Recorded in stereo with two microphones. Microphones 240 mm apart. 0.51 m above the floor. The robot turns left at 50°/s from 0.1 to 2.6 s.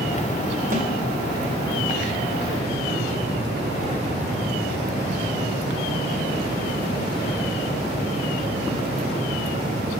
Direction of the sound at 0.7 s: 35° right (ahead or behind).